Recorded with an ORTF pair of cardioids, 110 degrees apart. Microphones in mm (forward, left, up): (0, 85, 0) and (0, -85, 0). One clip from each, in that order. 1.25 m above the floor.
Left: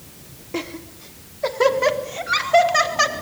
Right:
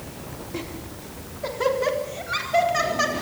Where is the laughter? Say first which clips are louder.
Left 7 dB; 35° left, 3 m; by 3.1 s 40° left, 5.5 m.